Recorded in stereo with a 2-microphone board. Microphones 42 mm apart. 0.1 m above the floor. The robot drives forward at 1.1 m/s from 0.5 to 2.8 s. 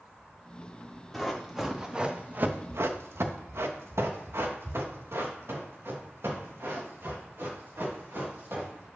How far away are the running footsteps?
About 3 m.